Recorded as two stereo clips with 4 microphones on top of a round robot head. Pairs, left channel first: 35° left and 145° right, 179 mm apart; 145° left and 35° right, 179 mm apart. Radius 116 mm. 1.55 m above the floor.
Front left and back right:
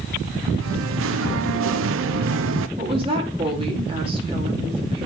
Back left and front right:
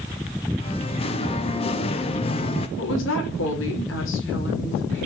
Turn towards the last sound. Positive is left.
turn(degrees=155)